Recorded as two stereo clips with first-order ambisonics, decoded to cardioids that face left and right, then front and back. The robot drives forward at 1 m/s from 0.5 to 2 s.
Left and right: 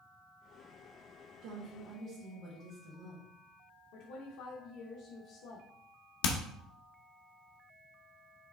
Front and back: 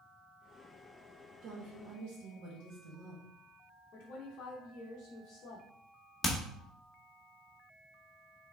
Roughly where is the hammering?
Left.